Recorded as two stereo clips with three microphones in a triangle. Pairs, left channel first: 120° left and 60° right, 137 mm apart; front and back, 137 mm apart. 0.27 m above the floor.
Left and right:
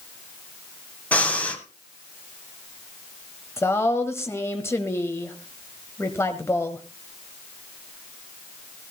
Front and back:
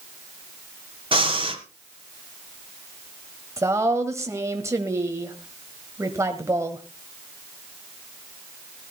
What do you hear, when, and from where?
1.1 s breathing: 165° right, 1.8 m
3.6 s a woman speaking: 155° left, 1.3 m